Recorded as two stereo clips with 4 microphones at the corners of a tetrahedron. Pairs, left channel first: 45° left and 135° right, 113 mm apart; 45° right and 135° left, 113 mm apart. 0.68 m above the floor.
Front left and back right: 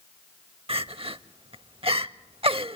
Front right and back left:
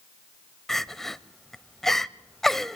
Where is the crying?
135° right, 0.6 m.